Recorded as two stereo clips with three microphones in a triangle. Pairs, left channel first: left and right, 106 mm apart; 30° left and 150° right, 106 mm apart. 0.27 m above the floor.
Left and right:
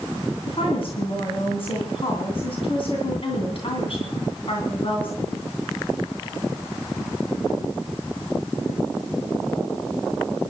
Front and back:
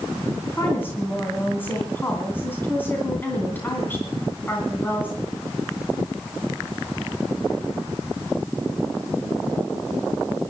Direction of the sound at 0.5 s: 100° left.